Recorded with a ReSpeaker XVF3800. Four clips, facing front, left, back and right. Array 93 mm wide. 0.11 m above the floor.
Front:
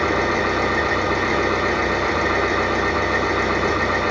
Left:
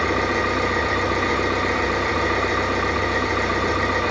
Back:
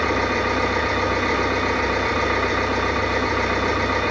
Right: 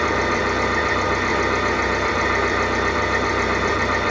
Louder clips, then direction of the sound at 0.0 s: Right 1 dB, front 1 dB; 20° right.